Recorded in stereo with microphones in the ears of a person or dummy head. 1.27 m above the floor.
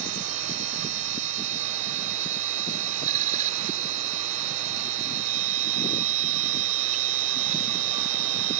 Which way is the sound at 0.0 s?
40° right (ahead or behind).